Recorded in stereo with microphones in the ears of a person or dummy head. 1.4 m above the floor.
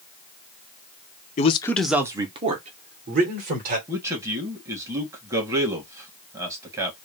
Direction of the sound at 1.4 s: 35° left (ahead or behind).